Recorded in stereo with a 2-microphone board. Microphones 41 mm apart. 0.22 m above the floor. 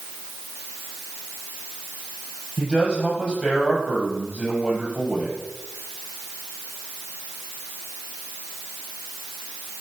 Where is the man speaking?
20° right (ahead or behind), 6 m.